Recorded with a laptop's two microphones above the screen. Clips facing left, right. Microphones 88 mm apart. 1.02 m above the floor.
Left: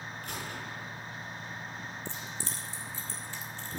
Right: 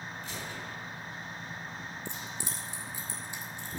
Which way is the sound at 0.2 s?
60° left (ahead or behind).